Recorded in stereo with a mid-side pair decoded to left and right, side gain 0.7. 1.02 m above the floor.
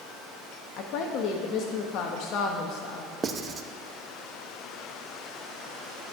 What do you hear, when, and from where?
0.8 s a woman speaking: 55° left, 1.3 m
3.2 s writing: 30° right, 0.8 m